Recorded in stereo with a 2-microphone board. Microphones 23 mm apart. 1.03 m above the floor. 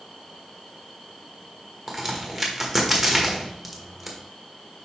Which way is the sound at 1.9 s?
Centre (ahead or behind).